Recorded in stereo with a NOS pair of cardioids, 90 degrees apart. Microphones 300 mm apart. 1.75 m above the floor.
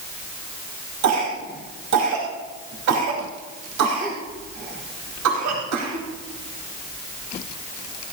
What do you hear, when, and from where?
1.0 s a cough: 65° right, 4 m